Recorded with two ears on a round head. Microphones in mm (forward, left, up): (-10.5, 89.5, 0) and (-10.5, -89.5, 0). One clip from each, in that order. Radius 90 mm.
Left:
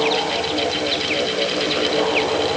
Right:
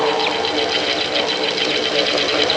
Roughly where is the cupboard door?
I don't hear a cupboard door.